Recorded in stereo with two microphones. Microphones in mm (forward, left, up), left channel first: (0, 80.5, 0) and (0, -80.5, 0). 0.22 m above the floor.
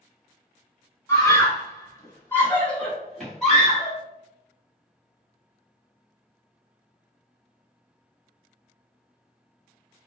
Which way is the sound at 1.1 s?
20° left (ahead or behind).